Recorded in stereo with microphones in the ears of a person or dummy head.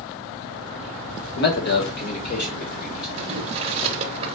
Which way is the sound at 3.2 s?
30° right (ahead or behind).